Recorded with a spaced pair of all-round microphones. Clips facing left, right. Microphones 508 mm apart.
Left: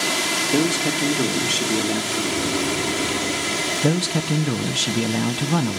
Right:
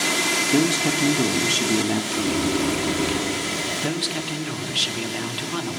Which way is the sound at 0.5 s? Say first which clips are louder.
Even; 20° right (ahead or behind).